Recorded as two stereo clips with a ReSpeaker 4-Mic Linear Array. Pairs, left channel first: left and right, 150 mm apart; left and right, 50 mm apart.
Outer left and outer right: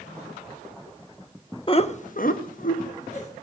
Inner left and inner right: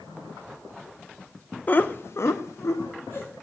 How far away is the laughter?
About 0.9 m.